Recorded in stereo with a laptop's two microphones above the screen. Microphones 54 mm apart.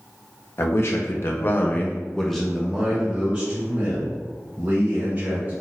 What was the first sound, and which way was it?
A man speaking, 50° left (ahead or behind).